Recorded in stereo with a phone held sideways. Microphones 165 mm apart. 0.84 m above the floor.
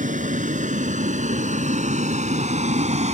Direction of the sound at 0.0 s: 55° right (ahead or behind).